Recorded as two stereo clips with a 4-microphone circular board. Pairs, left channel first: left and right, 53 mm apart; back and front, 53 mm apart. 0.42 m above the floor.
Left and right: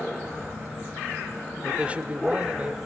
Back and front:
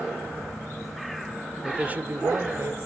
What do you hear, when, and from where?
1.6 s a man speaking: 55° right, 0.8 m; by 2.8 s 30° right, 1.5 m